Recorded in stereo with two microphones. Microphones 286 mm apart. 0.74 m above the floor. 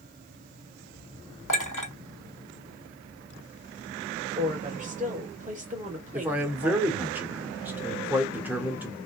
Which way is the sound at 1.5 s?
80° left.